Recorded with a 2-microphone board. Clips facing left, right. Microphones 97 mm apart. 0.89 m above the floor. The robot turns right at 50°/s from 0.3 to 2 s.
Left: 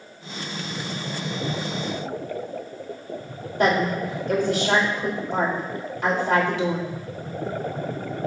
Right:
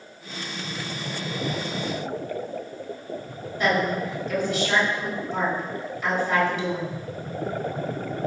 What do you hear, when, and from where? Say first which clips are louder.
3.6 s a woman speaking: left 2 dB; 75° left (ahead or behind), 3 m